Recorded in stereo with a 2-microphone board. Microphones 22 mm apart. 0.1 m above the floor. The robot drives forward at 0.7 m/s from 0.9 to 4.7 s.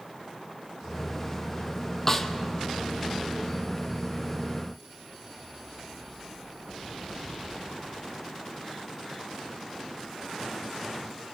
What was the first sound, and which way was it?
A snare drum, 20° left (ahead or behind).